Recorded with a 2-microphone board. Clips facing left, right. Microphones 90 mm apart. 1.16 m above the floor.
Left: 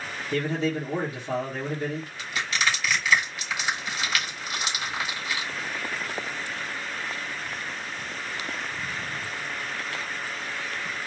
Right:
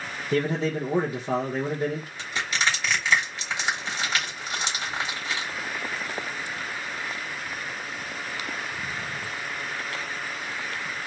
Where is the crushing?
30° right (ahead or behind), 3.5 m.